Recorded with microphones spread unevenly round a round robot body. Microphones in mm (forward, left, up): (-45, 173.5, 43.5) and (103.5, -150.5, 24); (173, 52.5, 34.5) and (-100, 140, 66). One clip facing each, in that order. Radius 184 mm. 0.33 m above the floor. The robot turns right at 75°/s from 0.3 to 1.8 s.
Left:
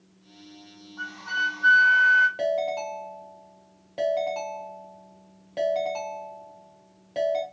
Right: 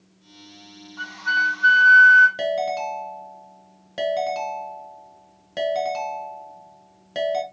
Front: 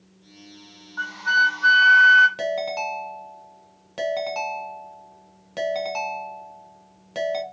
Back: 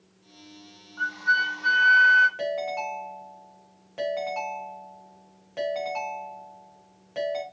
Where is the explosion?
I don't hear an explosion.